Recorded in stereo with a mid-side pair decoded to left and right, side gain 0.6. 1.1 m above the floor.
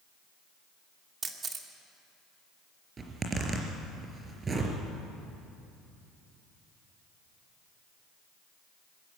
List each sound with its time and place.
1.2 s a camera shutter: 30° right, 2 m
3.0 s a zipper: 30° right, 4 m